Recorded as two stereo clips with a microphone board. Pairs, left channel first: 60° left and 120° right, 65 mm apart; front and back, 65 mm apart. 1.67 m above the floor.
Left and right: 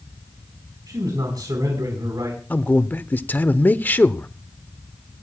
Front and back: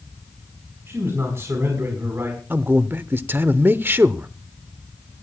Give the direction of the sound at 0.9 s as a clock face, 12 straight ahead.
4 o'clock.